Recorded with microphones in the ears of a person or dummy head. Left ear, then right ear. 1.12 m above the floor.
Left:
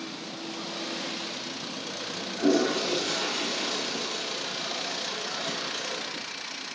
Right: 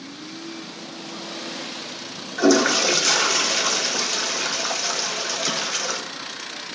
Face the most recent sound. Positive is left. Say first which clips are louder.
# right 8 dB
turn(degrees=-50)  # may be behind; listen again after turning